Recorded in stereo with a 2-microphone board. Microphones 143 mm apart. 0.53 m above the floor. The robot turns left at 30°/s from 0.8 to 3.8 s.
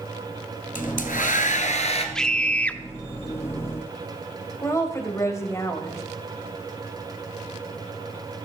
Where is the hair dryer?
85° left, 1.6 m; by 2.0 s 50° left, 1.6 m.